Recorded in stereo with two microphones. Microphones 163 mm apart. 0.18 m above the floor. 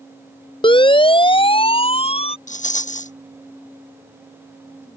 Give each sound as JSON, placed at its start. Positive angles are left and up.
{"t": 0.6, "sound": "a siren", "side_deg": 30}
{"t": 2.5, "sound": "a rattle", "side_deg": 45}